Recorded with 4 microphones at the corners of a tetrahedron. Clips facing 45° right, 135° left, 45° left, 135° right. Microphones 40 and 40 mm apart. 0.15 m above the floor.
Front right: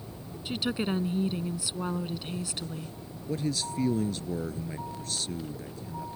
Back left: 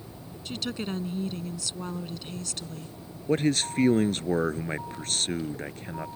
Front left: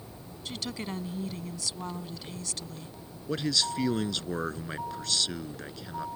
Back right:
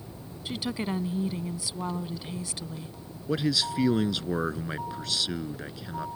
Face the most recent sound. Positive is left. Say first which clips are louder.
# back left 7 dB, back right 2 dB
turn(degrees=145)